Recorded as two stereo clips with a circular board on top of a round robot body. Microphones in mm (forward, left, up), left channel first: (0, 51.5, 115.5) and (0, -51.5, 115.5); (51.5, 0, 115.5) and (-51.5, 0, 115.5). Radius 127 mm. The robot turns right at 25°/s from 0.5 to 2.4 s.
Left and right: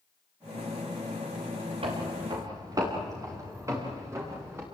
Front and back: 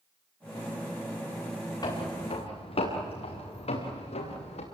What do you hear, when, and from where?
1.8 s footsteps: 55° right, 5 m; by 4.6 s 20° right, 6.5 m